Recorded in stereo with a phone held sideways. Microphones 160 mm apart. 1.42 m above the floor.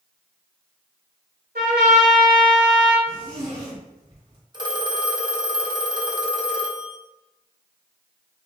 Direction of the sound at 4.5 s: 30° right (ahead or behind).